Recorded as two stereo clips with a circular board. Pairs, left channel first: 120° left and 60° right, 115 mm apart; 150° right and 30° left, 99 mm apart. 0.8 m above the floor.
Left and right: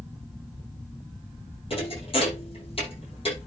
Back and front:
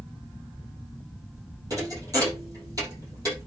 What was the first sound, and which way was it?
A thud, 85° left.